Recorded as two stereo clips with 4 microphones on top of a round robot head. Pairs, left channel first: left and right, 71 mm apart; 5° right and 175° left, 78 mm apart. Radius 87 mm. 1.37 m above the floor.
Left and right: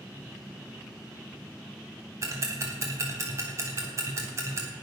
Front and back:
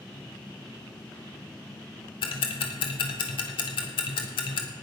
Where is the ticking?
30° right, 1.3 m.